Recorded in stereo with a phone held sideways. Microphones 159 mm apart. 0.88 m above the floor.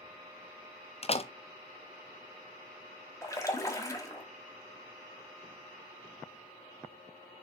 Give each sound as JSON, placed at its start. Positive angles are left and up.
{"t": 1.0, "sound": "a door slam", "side_deg": 40, "distance_m": 0.6}
{"t": 3.2, "sound": "a splash", "side_deg": 20, "distance_m": 1.6}